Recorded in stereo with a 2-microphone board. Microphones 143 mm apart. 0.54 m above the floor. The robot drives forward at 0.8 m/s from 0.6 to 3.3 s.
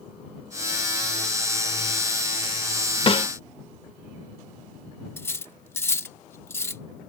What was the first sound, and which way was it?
A snare drum, 40° left (ahead or behind).